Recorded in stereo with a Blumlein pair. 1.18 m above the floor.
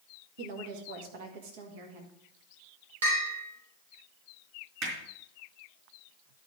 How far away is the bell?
About 3.5 m.